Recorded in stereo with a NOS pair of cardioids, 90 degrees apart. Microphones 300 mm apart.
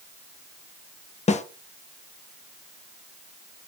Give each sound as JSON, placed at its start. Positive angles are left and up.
{"t": 1.3, "sound": "a snare drum", "azimuth_deg": 25, "distance_m": 0.7}